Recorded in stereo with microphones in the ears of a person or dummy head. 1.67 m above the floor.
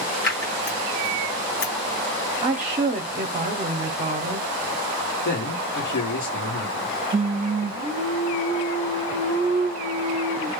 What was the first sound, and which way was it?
Scissors, 55° left (ahead or behind).